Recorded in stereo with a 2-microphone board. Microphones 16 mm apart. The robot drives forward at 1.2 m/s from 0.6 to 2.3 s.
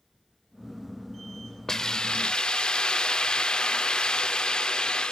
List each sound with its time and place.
1.7 s a hiss: 30° left (ahead or behind), 0.9 m; by 5.1 s 70° left (ahead or behind), 0.5 m